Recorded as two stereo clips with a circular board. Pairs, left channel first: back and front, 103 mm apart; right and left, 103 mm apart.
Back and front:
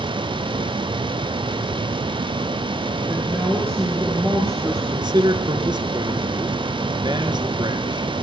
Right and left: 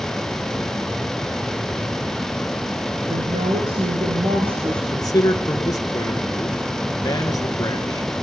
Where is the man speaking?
40° right, 3 m.